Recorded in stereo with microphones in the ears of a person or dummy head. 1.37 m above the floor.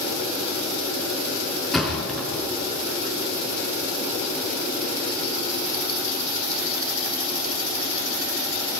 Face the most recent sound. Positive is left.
turn(degrees=5)  # may be behind; listen again after turning